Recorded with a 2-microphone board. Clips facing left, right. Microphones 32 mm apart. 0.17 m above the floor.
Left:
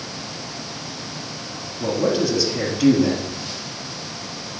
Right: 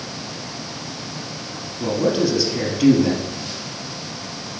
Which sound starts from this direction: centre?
A man speaking, at 1.8 s.